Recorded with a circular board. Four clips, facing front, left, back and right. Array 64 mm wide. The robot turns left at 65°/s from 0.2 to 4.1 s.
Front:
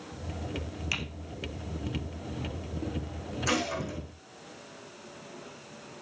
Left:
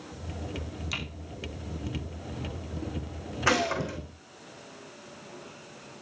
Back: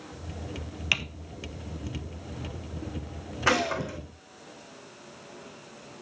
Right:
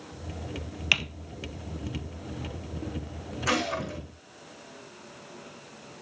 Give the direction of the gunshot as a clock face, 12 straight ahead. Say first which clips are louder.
Left 2 dB, back 5 dB; 7 o'clock.